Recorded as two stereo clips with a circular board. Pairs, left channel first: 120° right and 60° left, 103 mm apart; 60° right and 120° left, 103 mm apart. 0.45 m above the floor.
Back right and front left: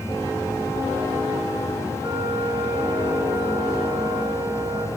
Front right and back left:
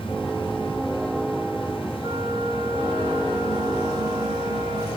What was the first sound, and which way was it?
A flute, 105° left.